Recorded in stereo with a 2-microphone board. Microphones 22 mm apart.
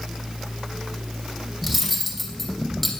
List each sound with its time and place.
1.6 s cutlery clinking: 10° left (ahead or behind), 2.5 m